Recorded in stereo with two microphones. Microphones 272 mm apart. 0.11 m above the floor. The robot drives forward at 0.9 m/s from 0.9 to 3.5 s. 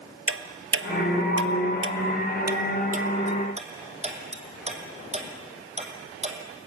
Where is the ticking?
50° right (ahead or behind), 1.2 m; by 6.7 s 25° right (ahead or behind), 2.5 m.